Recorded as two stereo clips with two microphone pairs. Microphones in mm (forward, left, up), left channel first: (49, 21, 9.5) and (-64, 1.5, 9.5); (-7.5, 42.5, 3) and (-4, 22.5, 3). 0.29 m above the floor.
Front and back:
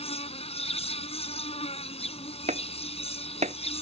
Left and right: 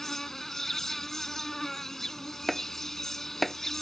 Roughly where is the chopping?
Behind.